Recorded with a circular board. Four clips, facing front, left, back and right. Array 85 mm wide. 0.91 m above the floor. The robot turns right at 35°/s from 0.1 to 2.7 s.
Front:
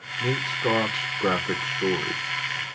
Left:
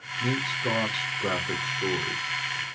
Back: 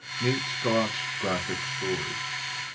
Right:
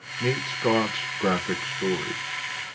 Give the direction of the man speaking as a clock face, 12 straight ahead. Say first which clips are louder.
Right 4 dB, front 2 dB; 3 o'clock.